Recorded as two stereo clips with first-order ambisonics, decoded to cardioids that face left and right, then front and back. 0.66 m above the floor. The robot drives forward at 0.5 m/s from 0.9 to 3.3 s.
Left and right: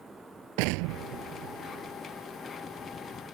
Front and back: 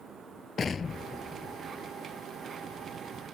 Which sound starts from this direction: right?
An explosion, at 0.6 s.